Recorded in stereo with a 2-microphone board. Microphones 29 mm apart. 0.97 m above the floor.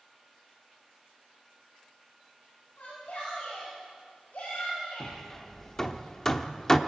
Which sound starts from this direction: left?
A shout, at 2.8 s.